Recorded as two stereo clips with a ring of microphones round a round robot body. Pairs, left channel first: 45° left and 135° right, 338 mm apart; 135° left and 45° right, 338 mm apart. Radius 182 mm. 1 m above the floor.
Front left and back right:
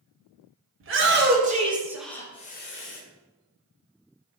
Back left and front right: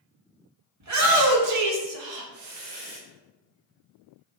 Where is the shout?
85° right, 1.9 m; by 3.0 s 5° left, 1.3 m.